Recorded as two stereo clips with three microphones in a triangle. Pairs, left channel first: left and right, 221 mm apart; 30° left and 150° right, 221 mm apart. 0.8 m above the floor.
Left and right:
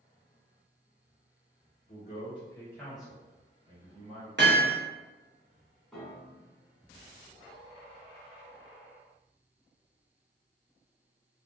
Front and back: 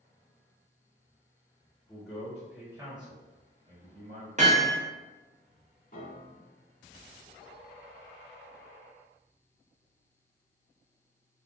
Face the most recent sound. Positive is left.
turn(degrees=0)